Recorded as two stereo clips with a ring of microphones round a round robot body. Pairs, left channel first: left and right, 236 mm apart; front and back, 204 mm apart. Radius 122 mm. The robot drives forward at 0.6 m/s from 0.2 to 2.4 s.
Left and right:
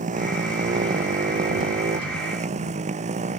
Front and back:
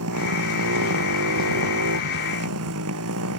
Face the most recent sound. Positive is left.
turn(degrees=-155)